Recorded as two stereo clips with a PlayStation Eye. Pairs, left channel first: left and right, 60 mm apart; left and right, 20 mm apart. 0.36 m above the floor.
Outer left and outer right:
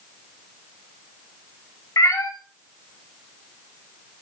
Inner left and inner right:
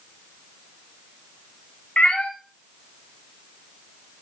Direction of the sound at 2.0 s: 70° left (ahead or behind).